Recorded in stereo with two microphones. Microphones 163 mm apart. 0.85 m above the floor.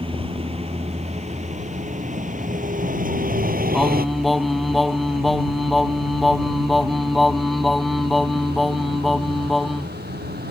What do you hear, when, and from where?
0.0 s a vehicle: 35° right (ahead or behind); by 10.5 s 80° right
3.7 s singing: centre (ahead or behind)